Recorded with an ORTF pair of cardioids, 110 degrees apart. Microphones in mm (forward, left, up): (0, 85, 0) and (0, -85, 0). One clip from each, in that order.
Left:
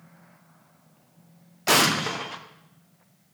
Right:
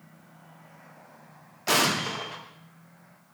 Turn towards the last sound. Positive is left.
turn(degrees=25)